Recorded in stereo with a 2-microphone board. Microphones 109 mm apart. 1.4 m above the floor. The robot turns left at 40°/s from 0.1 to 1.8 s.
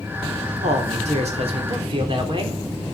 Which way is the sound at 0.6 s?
85° right.